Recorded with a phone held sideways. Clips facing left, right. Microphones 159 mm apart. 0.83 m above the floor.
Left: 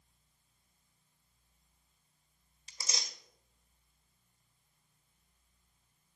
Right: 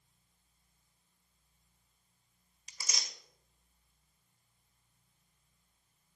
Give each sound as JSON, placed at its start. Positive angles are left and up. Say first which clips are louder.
{"t": 2.7, "sound": "tearing paper", "louder": "left 2 dB", "side_deg": 30, "distance_m": 1.4}